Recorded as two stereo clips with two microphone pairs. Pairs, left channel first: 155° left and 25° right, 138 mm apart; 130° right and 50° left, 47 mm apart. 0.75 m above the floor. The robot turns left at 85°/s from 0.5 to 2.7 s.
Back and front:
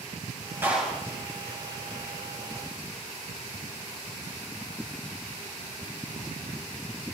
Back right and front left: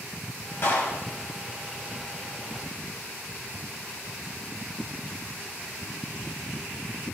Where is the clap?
100° right, 3.5 m; by 1.0 s 135° right, 3.5 m.